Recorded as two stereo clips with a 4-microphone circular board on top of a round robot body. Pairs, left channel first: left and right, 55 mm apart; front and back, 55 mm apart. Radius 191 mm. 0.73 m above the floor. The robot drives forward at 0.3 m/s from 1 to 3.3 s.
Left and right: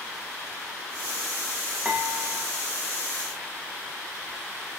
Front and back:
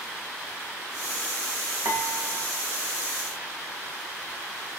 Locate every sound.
1.9 s dishes clattering: 160° right, 2.5 m; by 2.5 s 165° right, 3 m